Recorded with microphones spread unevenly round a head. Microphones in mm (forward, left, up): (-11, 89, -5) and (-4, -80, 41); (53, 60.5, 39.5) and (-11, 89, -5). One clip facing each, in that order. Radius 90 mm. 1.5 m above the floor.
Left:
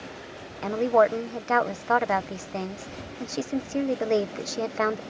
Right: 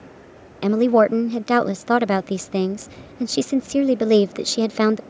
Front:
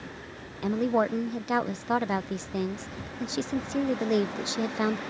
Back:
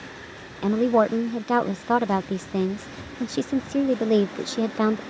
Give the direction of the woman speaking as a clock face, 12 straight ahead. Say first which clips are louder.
Right 6 dB, back 6 dB; 4 o'clock.